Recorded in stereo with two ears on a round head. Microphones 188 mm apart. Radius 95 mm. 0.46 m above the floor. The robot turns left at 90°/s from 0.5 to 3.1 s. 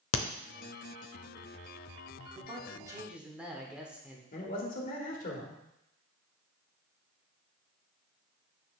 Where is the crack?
75° left (ahead or behind), 0.6 m.